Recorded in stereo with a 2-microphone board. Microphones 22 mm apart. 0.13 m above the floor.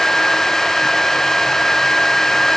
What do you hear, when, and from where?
Only background noise.